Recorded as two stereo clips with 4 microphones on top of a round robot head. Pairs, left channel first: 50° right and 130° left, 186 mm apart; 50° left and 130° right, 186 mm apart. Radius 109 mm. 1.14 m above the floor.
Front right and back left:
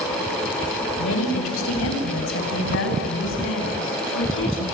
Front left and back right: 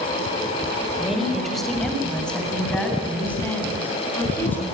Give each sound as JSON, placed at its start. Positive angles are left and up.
{"t": 1.0, "sound": "a woman speaking", "azimuth_deg": -40, "distance_m": 5.0}